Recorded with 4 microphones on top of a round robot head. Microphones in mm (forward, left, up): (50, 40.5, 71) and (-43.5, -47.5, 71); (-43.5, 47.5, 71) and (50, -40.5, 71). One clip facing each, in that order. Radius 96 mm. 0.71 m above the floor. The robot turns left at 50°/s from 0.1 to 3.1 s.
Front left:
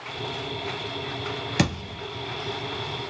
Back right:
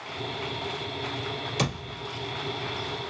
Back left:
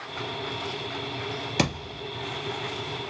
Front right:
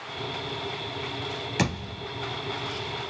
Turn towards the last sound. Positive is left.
turn(degrees=5)